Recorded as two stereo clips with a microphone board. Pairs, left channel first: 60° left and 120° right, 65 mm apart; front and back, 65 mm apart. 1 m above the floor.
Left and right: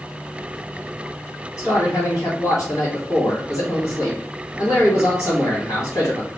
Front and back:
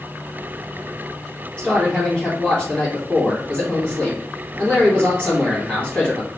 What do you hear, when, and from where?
1.6 s a man speaking: 85° left, 1.8 m